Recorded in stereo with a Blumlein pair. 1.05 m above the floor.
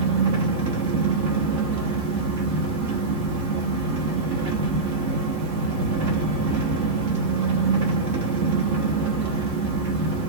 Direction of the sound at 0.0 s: 50° right.